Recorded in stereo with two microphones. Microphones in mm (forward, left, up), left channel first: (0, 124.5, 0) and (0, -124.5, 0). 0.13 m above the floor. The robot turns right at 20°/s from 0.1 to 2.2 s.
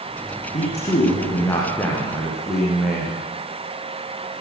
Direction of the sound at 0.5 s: 150° left.